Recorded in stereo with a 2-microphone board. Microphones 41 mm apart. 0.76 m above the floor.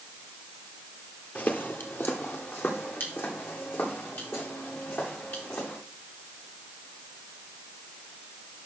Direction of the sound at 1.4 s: 40° left (ahead or behind).